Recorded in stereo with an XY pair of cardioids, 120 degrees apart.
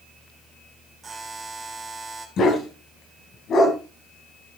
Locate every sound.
1.0 s a buzzer: 25° right, 3 m
2.4 s a dog barking: 50° left, 3 m